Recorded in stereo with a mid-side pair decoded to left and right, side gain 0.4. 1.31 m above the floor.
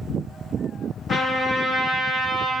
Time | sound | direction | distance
1.1 | a trumpet | 60° left | 2.5 m